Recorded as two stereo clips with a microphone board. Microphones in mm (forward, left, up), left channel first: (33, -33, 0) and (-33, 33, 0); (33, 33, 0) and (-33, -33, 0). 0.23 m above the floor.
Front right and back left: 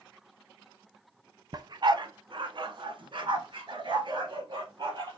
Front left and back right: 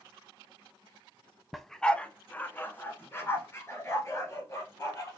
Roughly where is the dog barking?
Behind left.